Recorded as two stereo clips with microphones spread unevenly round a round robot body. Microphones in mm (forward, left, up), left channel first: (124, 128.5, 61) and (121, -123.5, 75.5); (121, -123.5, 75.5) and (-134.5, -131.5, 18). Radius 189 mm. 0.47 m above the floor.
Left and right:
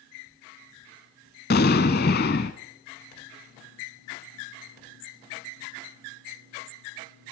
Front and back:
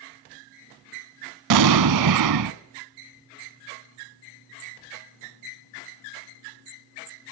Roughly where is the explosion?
Behind left.